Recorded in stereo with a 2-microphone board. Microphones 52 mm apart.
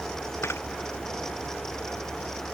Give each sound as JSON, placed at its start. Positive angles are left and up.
{"t": 0.4, "sound": "a camera shutter", "side_deg": 55}